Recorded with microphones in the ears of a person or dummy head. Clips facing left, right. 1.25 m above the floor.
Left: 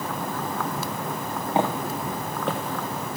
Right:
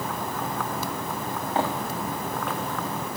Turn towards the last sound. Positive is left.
turn(degrees=35)  # may be behind; listen again after turning